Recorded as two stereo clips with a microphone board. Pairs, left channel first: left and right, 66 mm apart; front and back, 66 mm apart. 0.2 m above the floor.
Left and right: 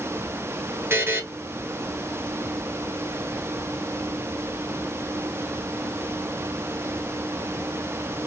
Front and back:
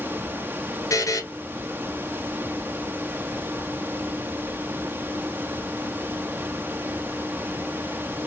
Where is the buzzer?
35° right, 1.0 m.